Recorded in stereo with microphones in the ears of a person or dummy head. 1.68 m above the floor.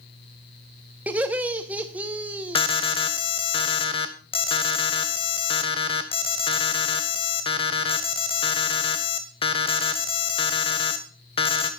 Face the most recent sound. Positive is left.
turn(degrees=30)  # may be behind; listen again after turning